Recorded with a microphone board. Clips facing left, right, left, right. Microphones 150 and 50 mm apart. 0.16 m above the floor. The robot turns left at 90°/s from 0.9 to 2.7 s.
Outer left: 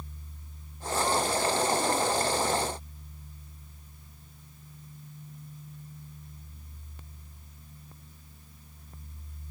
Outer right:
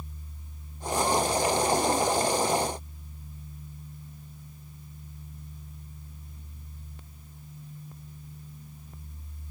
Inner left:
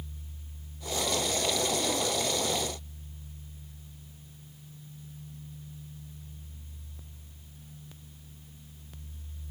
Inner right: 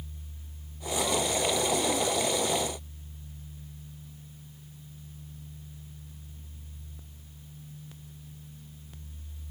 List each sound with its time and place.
Only background noise.